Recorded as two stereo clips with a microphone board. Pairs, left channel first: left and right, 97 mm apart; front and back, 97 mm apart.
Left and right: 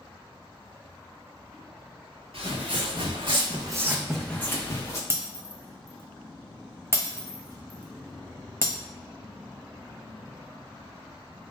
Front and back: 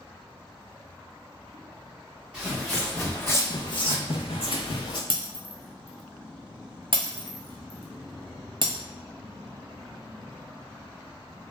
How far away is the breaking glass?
About 0.6 m.